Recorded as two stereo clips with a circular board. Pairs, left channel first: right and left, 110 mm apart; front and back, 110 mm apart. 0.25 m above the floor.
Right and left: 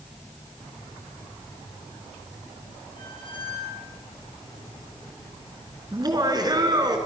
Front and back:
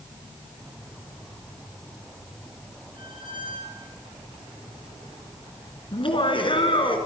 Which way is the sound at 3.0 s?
135° right.